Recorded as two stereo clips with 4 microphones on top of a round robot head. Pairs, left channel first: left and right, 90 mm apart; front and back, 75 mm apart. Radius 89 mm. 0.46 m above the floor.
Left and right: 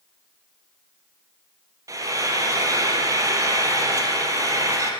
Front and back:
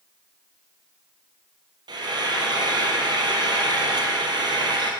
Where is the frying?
145° right, 4 m.